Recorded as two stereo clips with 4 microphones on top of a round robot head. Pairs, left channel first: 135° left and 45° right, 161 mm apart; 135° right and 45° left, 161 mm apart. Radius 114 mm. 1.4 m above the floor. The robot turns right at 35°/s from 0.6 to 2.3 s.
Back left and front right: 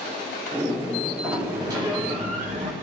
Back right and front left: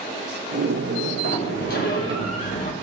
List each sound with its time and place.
1.2 s a sliding door: 125° right, 1.1 m; by 2.7 s 90° right, 1.1 m